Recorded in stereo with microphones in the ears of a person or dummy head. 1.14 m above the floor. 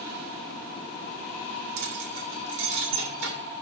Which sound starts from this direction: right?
Keys jangling, at 1.8 s.